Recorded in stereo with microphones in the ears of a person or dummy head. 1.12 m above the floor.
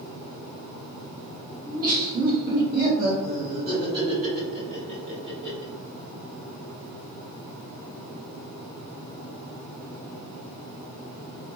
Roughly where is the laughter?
Right.